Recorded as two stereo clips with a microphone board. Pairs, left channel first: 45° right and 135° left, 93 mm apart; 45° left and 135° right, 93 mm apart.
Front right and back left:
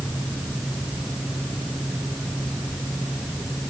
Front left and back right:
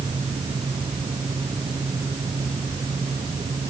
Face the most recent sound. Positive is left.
No sound to turn to.